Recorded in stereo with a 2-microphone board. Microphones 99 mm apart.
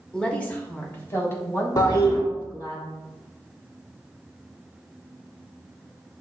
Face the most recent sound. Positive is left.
turn(degrees=40)  # may be behind; listen again after turning